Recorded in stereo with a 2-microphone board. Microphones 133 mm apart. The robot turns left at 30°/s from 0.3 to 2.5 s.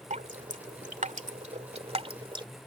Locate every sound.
0.1 s dripping: 65° right (ahead or behind); by 2.5 s 35° right (ahead or behind)